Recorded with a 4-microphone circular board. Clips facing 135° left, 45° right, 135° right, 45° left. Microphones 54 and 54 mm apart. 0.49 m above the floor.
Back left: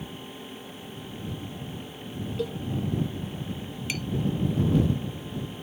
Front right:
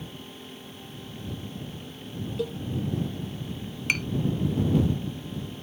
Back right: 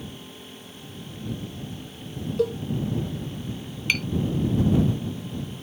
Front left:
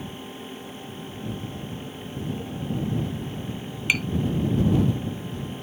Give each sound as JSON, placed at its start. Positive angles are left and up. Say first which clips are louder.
{"t": 2.4, "sound": "a cowbell", "louder": "even, back right 11 dB", "azimuth_deg": -135}
{"t": 3.9, "sound": "tapping", "louder": "front right 7 dB, front left 1 dB", "azimuth_deg": -30}